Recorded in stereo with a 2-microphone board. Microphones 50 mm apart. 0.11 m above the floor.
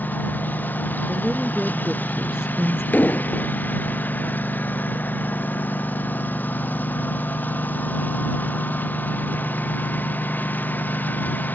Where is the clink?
I don't hear a clink.